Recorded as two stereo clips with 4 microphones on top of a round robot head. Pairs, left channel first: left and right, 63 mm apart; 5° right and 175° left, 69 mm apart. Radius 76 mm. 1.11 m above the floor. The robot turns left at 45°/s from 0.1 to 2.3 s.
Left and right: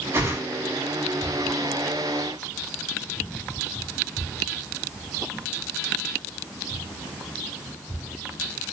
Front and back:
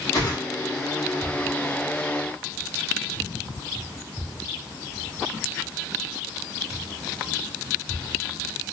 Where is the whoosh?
40° right, 4 m; by 0.4 s 55° right, 4 m.